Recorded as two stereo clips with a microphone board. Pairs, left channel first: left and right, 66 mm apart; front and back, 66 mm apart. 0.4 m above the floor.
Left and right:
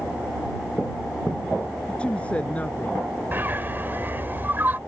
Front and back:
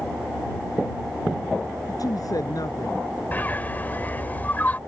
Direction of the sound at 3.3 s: 50° right.